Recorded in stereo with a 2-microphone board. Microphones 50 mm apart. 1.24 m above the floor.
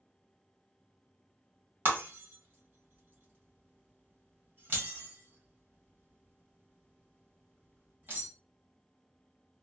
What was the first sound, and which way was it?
Breaking glass, 45° right (ahead or behind).